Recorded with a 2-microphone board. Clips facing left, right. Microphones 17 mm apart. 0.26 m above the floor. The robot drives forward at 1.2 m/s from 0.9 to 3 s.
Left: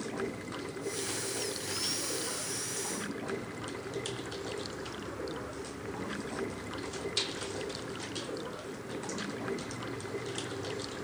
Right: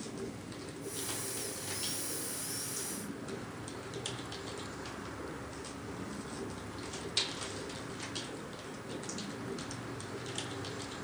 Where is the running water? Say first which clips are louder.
Left 5 dB; 50° left (ahead or behind); by 11.0 s 45° left (ahead or behind).